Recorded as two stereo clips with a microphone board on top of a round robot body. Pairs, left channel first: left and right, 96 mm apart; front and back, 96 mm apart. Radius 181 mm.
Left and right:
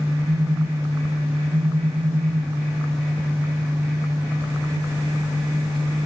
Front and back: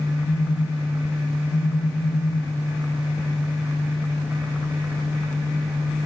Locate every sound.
0.2 s a phone buzzing: 40° right